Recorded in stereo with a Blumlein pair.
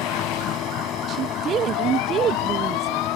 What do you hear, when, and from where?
0.0 s a machine running: 30° left
1.1 s a woman speaking: 25° right